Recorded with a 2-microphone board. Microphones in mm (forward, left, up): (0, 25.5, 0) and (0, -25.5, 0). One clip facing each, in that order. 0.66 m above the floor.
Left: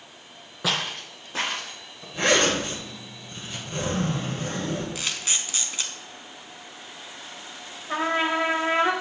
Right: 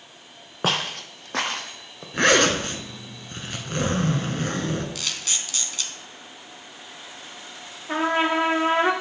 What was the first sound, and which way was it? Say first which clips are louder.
Footsteps: right 2 dB; 45° right (ahead or behind).